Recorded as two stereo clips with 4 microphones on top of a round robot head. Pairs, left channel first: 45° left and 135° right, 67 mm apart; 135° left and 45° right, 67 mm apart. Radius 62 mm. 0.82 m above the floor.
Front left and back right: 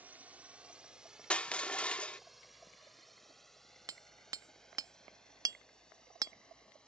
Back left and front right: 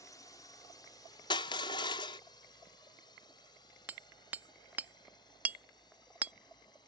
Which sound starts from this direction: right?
Hammering, at 3.9 s.